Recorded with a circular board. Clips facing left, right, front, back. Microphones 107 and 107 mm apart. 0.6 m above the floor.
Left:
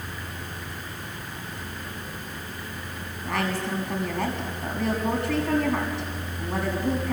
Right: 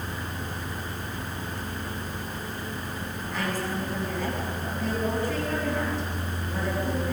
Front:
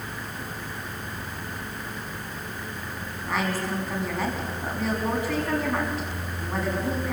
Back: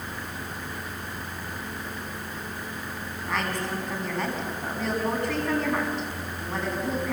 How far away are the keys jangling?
I don't hear keys jangling.